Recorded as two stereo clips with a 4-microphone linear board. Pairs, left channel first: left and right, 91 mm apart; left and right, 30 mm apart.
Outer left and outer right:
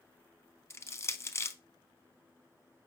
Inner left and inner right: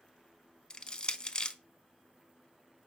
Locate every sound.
0.7 s crushing: 30° left (ahead or behind), 0.5 m